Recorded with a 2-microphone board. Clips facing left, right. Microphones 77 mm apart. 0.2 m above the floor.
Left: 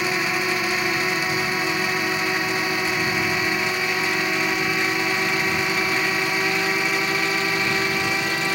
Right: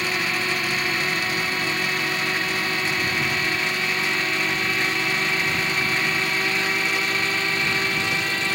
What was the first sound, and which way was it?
A drone, 15° left (ahead or behind).